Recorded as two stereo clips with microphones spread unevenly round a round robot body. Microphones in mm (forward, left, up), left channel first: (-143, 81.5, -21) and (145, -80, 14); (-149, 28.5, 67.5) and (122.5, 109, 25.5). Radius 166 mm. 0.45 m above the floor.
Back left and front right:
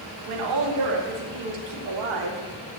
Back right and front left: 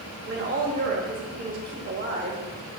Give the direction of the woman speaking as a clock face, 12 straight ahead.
1 o'clock.